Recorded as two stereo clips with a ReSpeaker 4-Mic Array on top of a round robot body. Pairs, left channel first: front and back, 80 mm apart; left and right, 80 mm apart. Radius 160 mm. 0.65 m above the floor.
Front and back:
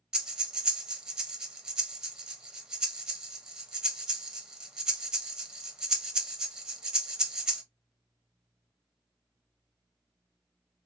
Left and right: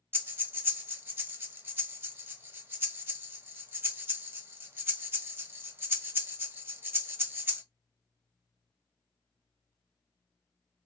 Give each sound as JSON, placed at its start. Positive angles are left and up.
{"t": 0.1, "sound": "breathing", "azimuth_deg": -110, "distance_m": 1.0}